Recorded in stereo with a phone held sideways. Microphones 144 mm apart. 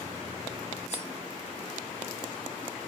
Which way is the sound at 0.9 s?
50° left (ahead or behind).